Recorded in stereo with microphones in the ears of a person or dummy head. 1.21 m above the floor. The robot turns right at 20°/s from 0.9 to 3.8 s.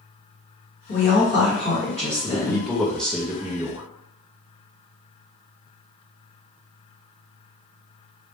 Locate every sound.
0.9 s a woman speaking: 135° left, 1.4 m; by 2.6 s 170° left, 1.4 m
2.2 s a man speaking: 165° left, 0.5 m; by 3.8 s 165° right, 0.5 m